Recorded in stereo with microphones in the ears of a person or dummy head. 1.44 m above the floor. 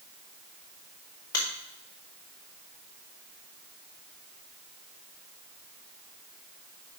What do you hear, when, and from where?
1.3 s a finger snap: 25° left (ahead or behind), 1.7 m